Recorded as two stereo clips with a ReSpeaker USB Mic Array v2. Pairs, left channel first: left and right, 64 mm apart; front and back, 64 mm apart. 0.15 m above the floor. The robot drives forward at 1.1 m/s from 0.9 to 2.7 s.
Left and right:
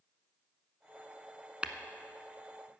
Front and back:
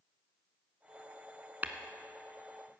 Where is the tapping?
145° right, 0.8 m; by 1.7 s 150° right, 0.9 m.